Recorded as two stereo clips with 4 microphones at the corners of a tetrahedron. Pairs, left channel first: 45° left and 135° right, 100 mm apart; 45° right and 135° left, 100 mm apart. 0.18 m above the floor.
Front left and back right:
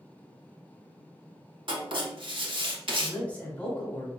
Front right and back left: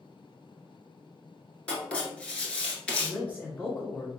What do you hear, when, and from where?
1.7 s writing: 120° right, 1.2 m
3.0 s a man speaking: 5° right, 1.4 m